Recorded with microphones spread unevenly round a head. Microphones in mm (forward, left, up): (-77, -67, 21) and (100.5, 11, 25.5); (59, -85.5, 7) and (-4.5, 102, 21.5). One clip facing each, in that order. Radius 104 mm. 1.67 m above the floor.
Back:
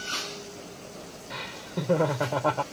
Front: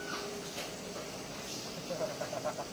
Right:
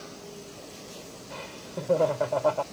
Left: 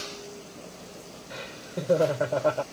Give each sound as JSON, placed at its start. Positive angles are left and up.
{"t": 1.3, "sound": "laughter", "azimuth_deg": 180}